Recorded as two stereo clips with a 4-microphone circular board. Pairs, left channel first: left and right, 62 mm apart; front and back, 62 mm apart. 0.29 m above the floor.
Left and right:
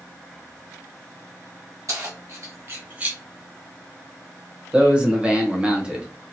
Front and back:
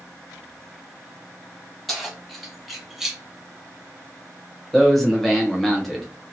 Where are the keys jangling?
85° right, 1.5 m; by 3.2 s 110° right, 0.8 m.